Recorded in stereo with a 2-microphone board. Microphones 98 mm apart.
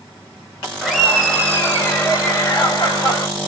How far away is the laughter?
About 1.2 m.